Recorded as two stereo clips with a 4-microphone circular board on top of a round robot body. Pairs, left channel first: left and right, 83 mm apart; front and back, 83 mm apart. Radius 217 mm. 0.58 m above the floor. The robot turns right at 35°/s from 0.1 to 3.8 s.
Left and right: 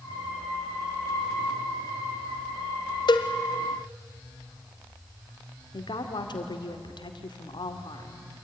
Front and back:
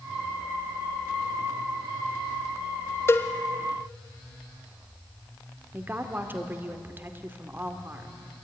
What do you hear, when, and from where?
3.1 s a cowbell: 60° left, 0.9 m; by 3.3 s 65° left, 0.9 m
5.7 s a woman speaking: 115° left, 2 m